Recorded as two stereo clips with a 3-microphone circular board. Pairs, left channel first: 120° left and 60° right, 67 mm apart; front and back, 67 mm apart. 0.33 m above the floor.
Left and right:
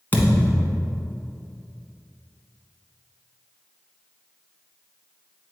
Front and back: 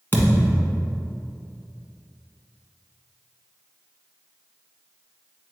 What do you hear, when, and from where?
0.1 s a thud: 60° left, 1.2 m